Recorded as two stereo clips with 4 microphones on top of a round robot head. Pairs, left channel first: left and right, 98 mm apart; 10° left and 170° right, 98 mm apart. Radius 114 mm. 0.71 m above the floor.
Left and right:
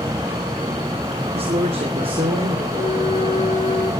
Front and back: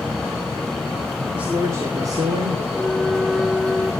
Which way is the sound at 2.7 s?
100° left.